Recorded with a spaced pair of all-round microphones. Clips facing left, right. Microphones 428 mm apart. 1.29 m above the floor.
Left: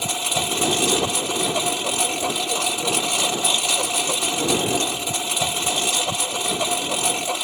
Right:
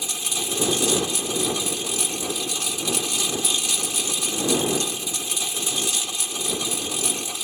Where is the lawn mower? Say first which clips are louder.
Left 5 dB; 75° left (ahead or behind).